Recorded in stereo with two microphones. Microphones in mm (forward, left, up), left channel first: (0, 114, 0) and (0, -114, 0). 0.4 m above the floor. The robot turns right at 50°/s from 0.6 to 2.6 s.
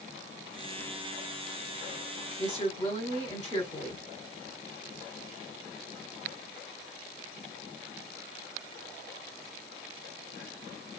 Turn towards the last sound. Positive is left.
turn(degrees=20)  # may be behind; listen again after turning